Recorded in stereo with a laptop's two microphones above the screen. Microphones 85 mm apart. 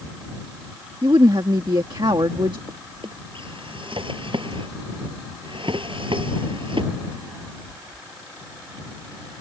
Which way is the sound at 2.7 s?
75° right (ahead or behind).